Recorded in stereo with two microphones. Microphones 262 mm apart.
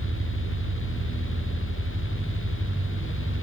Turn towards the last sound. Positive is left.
turn(degrees=-70)  # may be behind; listen again after turning